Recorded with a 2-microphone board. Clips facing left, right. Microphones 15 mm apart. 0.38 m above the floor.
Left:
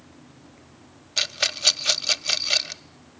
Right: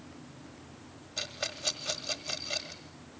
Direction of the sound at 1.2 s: 65° left (ahead or behind).